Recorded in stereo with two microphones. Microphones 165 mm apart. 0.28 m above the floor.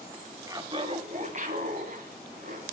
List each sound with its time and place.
0.5 s laughter: 20° right (ahead or behind), 1.0 m; by 2.6 s 60° right (ahead or behind), 2.5 m